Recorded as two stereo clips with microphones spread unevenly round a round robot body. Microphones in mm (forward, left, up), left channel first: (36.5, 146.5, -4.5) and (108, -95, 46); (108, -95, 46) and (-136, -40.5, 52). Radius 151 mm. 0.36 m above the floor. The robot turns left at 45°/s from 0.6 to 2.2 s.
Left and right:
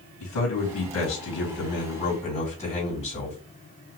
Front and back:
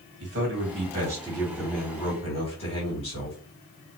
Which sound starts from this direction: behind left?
A man speaking, at 0.2 s.